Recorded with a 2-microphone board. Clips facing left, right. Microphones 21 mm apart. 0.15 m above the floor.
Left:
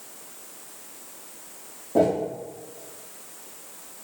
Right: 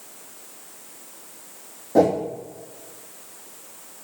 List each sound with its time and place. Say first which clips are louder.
1.9 s a whoosh: right 3 dB; 60° right (ahead or behind), 1.6 m